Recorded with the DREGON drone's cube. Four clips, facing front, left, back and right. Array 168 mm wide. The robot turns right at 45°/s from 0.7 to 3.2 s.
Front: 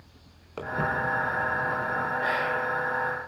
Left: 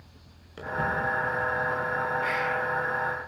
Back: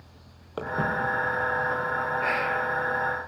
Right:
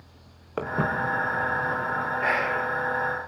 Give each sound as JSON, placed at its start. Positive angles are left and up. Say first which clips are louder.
{"t": 0.6, "sound": "footsteps", "louder": "right 2 dB, back 1 dB", "azimuth_deg": -110, "distance_m": 4.5}
{"t": 2.2, "sound": "whispering", "louder": "right 2 dB, back 1 dB", "azimuth_deg": -100, "distance_m": 1.2}